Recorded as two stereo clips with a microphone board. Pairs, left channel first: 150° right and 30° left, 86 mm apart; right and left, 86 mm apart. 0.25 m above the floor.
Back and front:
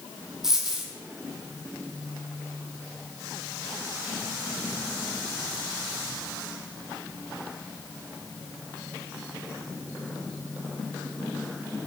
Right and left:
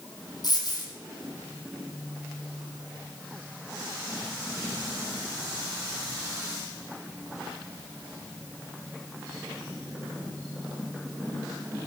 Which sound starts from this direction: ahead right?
A dropped coin, at 0.4 s.